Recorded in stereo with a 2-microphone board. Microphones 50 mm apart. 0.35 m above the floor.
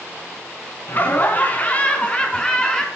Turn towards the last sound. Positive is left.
turn(degrees=15)  # may be behind; listen again after turning